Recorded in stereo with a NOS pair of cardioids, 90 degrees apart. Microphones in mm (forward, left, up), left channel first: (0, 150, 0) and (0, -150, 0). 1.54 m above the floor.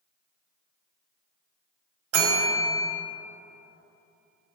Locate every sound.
2.1 s a bell: 55° right, 1.1 m